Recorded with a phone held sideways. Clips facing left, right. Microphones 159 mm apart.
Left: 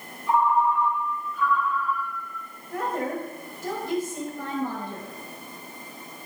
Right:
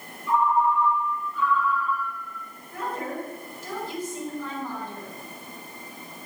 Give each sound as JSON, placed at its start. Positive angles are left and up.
{"t": 0.3, "sound": "a ringtone", "side_deg": 55, "distance_m": 2.5}
{"t": 2.7, "sound": "a woman speaking", "side_deg": 80, "distance_m": 6.0}